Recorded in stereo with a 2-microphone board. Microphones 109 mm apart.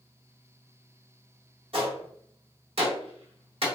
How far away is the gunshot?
About 1.3 m.